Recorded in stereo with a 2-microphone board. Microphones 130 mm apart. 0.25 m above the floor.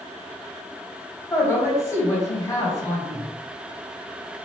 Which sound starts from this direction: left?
A man speaking, at 1.3 s.